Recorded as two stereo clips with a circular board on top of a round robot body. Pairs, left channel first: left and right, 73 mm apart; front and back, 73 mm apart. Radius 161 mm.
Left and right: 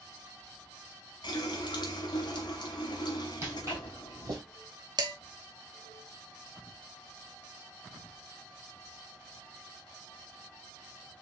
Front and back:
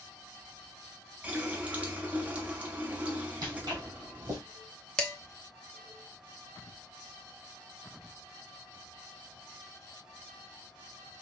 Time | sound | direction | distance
1.2 | a running tap | 110° left | 0.8 m
3.4 | footsteps | 150° right | 1.9 m
5.0 | dishes clattering | 80° right | 0.8 m